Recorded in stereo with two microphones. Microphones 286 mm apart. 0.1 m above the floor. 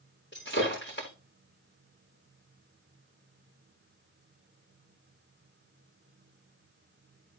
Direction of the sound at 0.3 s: 40° left (ahead or behind).